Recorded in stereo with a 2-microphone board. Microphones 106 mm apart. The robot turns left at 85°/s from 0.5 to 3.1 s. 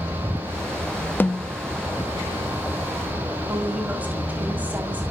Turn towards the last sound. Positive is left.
turn(degrees=-20)  # may be behind; listen again after turning